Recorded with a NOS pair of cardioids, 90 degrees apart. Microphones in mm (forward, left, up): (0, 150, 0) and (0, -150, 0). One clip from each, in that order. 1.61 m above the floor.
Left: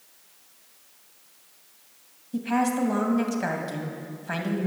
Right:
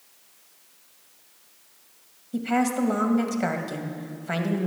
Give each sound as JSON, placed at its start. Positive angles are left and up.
{"t": 2.3, "sound": "a woman speaking", "azimuth_deg": -15, "distance_m": 2.0}